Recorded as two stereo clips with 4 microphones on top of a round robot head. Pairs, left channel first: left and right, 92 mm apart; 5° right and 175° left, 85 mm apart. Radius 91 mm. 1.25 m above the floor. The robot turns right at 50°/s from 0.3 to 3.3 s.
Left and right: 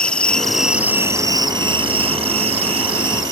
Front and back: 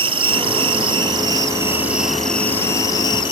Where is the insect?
170° left; by 3.3 s 40° right.